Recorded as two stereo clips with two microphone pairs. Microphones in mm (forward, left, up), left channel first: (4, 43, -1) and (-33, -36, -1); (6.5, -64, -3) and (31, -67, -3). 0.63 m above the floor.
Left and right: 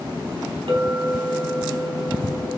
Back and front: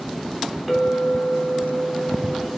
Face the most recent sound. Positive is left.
turn(degrees=-85)